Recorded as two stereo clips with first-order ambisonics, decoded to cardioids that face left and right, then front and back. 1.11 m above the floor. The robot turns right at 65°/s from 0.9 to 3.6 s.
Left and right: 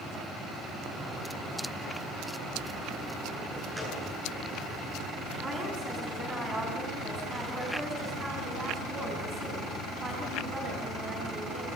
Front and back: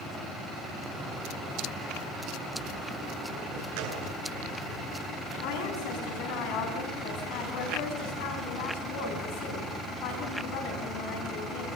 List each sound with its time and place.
3.8 s a gunshot: 175° right, 8.5 m
5.4 s a woman speaking: 10° right, 9.5 m